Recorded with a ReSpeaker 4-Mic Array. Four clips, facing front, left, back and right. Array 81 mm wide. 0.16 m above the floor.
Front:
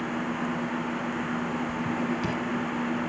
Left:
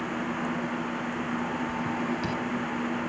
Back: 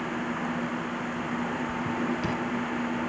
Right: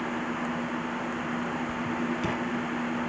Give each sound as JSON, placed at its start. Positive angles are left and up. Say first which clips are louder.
{"t": 1.7, "sound": "writing", "louder": "even, front 1 dB", "azimuth_deg": -90, "distance_m": 1.6}